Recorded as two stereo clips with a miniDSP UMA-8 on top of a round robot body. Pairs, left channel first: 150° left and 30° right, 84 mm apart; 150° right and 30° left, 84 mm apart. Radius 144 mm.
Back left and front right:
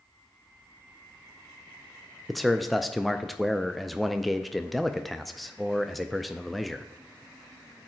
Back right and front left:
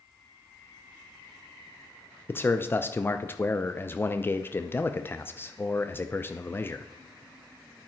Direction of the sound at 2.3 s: 120° right.